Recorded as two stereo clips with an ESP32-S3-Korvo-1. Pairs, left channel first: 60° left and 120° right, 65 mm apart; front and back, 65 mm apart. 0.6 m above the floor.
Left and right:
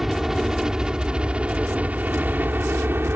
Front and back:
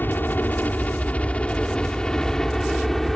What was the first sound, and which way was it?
A helicopter, 35° right.